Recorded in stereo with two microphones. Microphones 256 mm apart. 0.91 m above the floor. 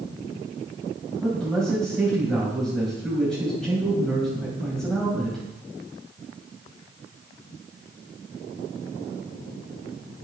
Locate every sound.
1.2 s a man speaking: 5° left (ahead or behind), 4.5 m